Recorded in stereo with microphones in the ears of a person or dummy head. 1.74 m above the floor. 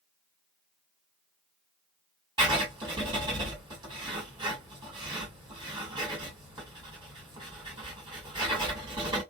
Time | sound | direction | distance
2.4 | writing | 20° right (ahead or behind) | 1.7 m